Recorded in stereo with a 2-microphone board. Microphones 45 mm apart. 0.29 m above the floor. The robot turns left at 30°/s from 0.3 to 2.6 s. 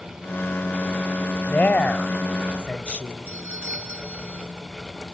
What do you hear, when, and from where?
1.5 s a woman speaking: 30° left (ahead or behind), 1.0 m
3.3 s a doorbell: 65° right (ahead or behind), 4 m